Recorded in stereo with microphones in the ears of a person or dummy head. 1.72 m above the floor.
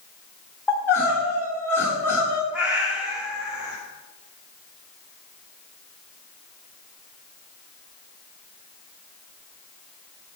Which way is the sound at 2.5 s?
5° right (ahead or behind).